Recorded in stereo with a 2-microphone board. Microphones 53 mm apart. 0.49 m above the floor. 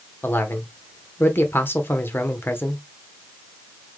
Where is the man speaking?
45° left (ahead or behind), 1.0 m.